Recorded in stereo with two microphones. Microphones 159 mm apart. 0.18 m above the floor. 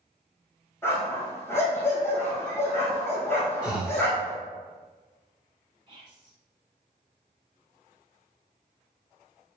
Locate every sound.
0.8 s a dog barking: 15° left (ahead or behind), 3 m
3.6 s breathing: 5° right (ahead or behind), 1.7 m
5.9 s whispering: 30° right (ahead or behind), 2 m